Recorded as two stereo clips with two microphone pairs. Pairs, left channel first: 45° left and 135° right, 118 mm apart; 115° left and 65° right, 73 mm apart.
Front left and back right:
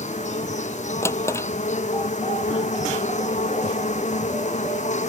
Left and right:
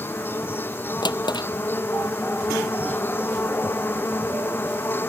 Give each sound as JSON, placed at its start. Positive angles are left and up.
{"t": 0.0, "sound": "an insect", "azimuth_deg": 55}
{"t": 1.0, "sound": "a drawer", "azimuth_deg": 115}